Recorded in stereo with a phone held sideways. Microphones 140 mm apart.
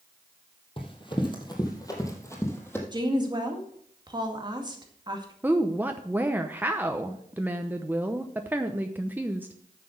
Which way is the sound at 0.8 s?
35° left (ahead or behind).